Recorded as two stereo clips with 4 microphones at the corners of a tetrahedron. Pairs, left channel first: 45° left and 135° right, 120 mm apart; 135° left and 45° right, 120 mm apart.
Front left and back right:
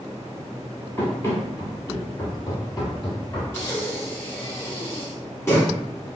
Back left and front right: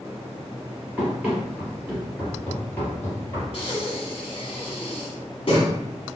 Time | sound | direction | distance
1.0 | running footsteps | 10° left | 1.8 m
3.5 | breathing | 105° left | 1.5 m